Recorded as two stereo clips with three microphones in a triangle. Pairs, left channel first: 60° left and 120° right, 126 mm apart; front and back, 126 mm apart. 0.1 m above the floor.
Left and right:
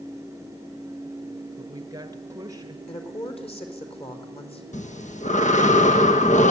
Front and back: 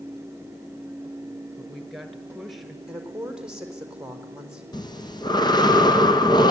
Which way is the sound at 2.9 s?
95° left.